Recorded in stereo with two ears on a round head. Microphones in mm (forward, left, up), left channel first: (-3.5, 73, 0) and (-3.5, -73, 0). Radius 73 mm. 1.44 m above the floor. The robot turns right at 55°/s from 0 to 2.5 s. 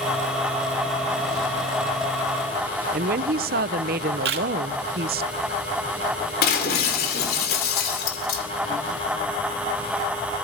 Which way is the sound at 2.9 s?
60° right (ahead or behind).